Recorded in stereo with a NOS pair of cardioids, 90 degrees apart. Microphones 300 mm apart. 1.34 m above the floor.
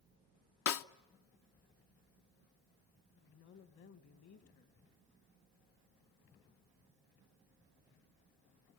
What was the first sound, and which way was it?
A snare drum, 50° left.